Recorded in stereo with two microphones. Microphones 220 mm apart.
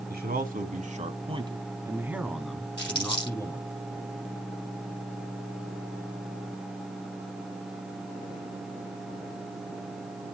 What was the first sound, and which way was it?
A man speaking, 50° right (ahead or behind).